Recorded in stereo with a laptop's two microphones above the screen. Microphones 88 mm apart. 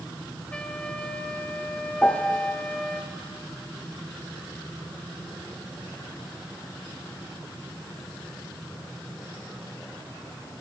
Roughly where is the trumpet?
Centre.